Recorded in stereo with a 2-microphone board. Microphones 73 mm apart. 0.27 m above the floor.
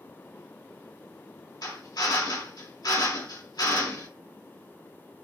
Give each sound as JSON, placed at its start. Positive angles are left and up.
{"t": 1.6, "sound": "a drill", "side_deg": 65, "distance_m": 2.0}